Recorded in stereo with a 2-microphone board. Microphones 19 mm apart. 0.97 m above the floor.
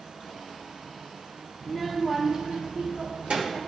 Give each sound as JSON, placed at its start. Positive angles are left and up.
{"t": 1.6, "sound": "a child speaking", "side_deg": 10, "distance_m": 1.4}